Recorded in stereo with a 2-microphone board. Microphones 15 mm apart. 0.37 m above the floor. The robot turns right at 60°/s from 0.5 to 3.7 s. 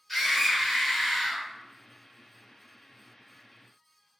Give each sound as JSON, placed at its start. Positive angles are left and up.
{"t": 0.1, "sound": "a scream", "azimuth_deg": 20, "distance_m": 1.3}